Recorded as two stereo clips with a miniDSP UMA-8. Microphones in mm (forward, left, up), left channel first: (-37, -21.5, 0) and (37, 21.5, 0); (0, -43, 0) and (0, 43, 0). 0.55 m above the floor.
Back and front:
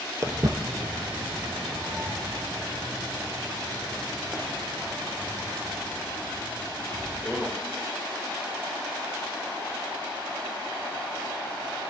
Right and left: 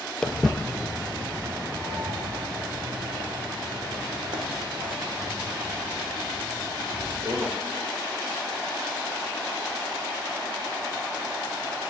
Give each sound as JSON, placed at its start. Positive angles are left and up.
{"t": 0.2, "sound": "footsteps", "azimuth_deg": -10, "distance_m": 0.8}